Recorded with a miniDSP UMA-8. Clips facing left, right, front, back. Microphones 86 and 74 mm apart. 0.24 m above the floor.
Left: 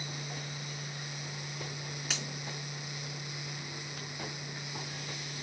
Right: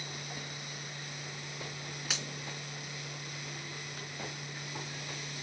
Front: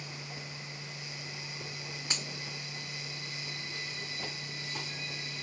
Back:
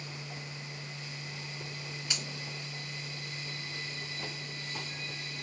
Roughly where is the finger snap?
Ahead.